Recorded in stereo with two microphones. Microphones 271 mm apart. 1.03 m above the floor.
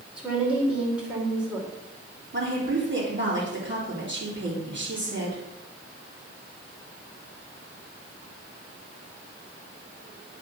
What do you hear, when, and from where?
0.2 s a woman speaking: 5° right (ahead or behind), 3 m
2.3 s a woman speaking: 45° right (ahead or behind), 3 m